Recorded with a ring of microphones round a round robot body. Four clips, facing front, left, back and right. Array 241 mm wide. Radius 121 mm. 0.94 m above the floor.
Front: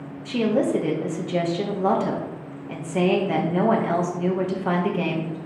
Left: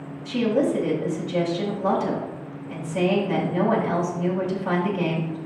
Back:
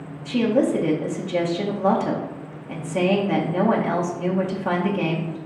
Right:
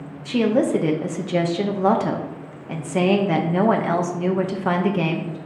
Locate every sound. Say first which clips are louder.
0.2 s a woman speaking: right 3 dB, back 2 dB; 90° right, 0.8 m